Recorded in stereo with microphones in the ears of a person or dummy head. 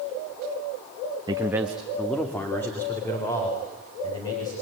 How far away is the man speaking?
About 1.0 m.